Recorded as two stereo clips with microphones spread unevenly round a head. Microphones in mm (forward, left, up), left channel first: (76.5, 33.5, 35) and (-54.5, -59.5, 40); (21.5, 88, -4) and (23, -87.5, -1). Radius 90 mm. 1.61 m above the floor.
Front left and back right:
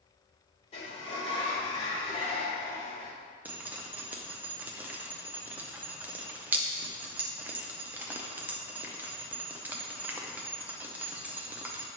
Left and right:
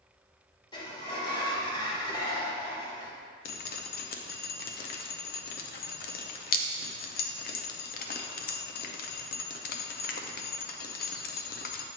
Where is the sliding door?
55° left, 1.4 m.